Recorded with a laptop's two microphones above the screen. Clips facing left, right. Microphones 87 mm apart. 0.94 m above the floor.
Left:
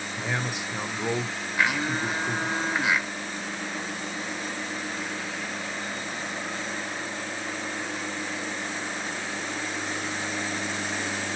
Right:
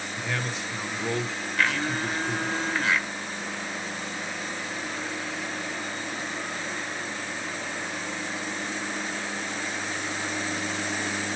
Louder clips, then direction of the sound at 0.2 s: Left 1 dB; 15° left (ahead or behind).